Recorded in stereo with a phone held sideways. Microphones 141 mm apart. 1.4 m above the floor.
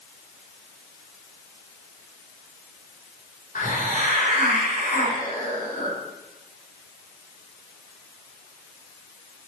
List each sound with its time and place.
3.5 s a hiss: 65° left (ahead or behind), 3.5 m